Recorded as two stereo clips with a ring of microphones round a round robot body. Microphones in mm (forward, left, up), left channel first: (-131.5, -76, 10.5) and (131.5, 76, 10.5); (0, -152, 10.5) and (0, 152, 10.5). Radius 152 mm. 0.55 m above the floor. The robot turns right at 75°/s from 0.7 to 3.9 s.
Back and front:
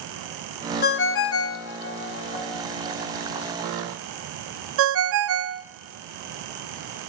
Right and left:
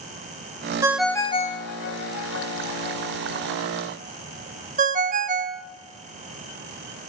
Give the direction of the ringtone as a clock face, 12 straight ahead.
6 o'clock.